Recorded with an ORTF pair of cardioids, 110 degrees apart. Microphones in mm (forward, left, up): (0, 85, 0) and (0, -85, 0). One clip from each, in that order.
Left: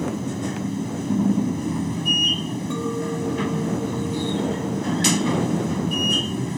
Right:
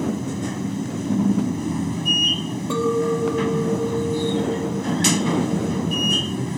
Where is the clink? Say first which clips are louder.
Right 8 dB; 50° right.